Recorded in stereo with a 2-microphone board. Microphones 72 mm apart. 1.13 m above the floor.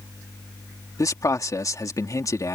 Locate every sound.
1.0 s a man speaking: 50° left (ahead or behind)